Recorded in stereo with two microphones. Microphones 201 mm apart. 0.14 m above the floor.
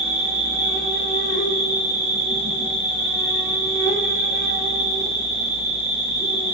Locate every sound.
0.0 s an insect: 55° left (ahead or behind), 1.3 m